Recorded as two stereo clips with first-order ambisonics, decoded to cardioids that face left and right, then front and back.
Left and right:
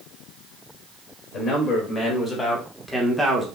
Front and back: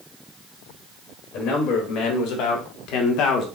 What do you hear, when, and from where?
1.3 s a man speaking: 35° left, 1.8 m; by 3.5 s 15° right, 0.9 m